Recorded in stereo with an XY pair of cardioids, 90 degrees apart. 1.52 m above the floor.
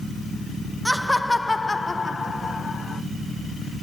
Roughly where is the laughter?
Ahead.